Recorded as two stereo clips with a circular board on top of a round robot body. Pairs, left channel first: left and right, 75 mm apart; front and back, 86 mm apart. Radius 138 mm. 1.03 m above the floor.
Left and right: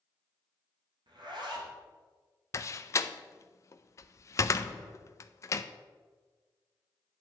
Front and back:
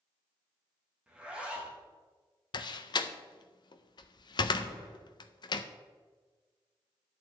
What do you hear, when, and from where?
1.1 s a zipper: 105° right, 2.5 m
2.5 s a door slam: 40° left, 0.5 m